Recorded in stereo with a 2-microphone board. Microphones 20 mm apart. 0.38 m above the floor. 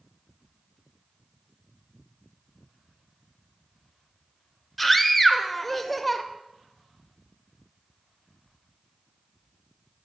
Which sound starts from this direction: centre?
A scream, at 4.8 s.